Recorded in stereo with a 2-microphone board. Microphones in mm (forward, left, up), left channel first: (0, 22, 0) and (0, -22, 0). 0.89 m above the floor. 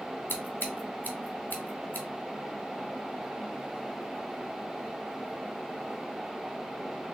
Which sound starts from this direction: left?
Scissors, at 0.3 s.